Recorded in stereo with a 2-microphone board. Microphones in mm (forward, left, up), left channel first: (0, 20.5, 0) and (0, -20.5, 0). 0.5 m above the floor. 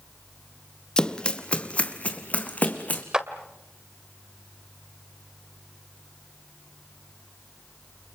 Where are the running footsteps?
20° left (ahead or behind), 1.4 m; by 3.0 s 40° left (ahead or behind), 2.5 m.